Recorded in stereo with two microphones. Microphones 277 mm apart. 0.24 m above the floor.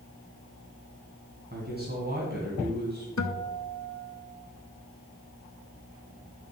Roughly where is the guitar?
Left.